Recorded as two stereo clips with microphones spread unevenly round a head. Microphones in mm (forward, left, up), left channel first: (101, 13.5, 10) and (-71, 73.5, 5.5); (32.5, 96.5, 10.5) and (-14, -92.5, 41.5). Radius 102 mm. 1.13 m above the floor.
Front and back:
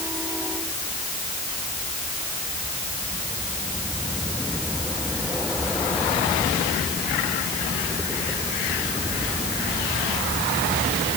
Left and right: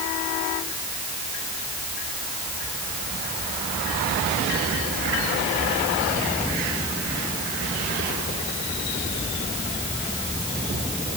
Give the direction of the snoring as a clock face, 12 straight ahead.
I don't hear snoring.